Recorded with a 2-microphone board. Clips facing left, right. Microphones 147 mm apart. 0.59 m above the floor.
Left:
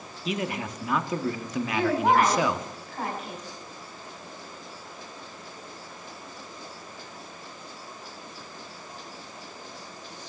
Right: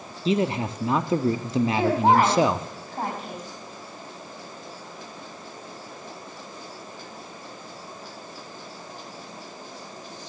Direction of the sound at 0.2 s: 30° right (ahead or behind).